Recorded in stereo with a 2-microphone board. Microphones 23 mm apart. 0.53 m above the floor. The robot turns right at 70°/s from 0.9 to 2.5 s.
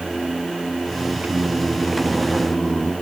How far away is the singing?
About 1.8 m.